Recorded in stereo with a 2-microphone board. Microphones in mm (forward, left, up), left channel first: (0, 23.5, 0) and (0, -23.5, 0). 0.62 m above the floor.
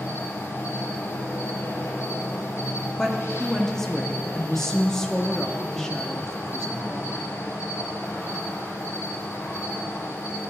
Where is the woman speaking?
10° left (ahead or behind), 1.1 m.